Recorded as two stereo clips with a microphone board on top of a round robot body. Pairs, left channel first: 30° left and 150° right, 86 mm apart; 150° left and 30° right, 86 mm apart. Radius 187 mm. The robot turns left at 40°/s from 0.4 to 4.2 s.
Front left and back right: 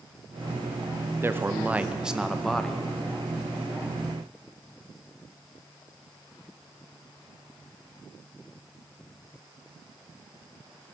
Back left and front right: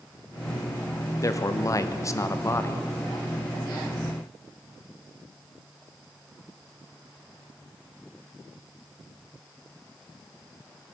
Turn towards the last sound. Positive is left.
turn(degrees=50)